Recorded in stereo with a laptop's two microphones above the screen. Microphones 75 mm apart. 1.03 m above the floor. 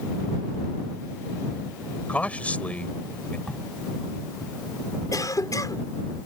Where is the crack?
10° left (ahead or behind).